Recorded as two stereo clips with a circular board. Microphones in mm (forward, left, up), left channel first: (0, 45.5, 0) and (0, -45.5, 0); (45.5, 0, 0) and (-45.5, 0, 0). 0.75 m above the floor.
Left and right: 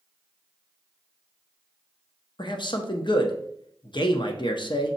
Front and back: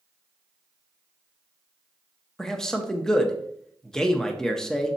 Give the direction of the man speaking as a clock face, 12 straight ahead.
9 o'clock.